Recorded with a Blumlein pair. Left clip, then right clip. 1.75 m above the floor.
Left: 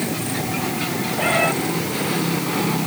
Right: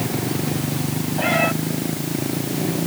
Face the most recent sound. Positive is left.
turn(degrees=0)